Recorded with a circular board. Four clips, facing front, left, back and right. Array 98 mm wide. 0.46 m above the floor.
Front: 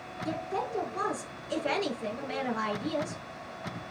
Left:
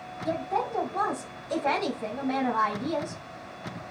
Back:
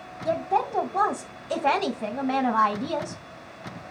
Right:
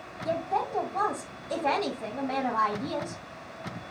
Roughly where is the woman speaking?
Behind.